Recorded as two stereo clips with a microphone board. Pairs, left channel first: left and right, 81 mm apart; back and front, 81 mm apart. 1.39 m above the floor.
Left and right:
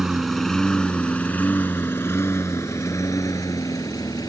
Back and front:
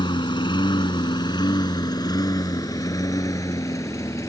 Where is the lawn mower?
175° right; by 4.3 s 130° left.